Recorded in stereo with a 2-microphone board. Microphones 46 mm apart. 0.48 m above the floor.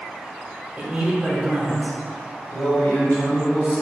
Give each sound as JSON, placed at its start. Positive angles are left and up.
{"t": 0.8, "sound": "a man speaking", "side_deg": -25, "distance_m": 1.0}
{"t": 2.5, "sound": "a man speaking", "side_deg": 50, "distance_m": 1.7}